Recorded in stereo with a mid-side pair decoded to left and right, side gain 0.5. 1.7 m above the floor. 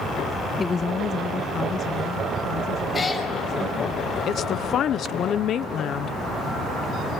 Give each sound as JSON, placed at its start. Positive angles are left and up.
{"t": 0.6, "sound": "a woman speaking", "azimuth_deg": 25, "distance_m": 0.6}
{"t": 2.9, "sound": "a cat meowing", "azimuth_deg": 30, "distance_m": 6.0}
{"t": 4.3, "sound": "a woman speaking", "azimuth_deg": 55, "distance_m": 0.9}